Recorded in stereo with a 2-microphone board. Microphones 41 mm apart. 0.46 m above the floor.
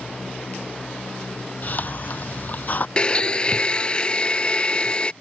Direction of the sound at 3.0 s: 25° left (ahead or behind).